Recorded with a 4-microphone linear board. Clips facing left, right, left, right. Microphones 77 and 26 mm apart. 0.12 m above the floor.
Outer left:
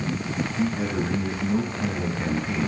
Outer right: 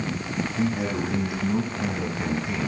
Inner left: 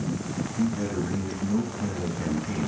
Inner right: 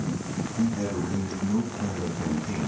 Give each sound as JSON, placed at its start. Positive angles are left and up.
{"t": 0.6, "sound": "a man speaking", "side_deg": -20, "distance_m": 5.5}